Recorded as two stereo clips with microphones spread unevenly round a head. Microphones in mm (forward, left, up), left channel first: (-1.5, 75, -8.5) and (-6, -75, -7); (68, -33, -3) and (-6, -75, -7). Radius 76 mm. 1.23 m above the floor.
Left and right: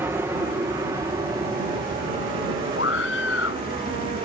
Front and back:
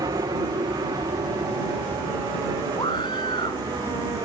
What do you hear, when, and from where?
0.0 s an aircraft: 160° right; by 4.3 s 130° right
2.8 s a scream: 90° left